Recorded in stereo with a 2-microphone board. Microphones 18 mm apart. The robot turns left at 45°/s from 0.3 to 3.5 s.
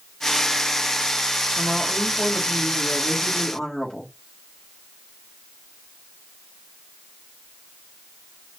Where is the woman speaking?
175° left, 1.2 m; by 4.1 s 90° left, 1.2 m.